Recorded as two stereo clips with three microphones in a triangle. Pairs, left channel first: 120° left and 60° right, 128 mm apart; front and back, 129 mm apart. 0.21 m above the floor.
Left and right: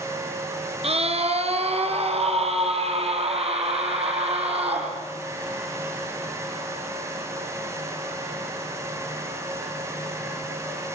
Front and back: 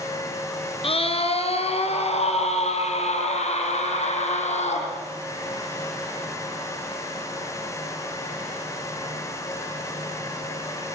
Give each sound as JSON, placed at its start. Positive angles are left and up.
{"t": 0.8, "sound": "a scream", "azimuth_deg": -35, "distance_m": 3.5}